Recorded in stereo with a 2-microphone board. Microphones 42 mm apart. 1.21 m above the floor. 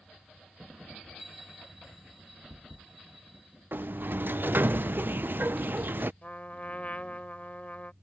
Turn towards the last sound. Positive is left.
turn(degrees=40)  # may be behind; listen again after turning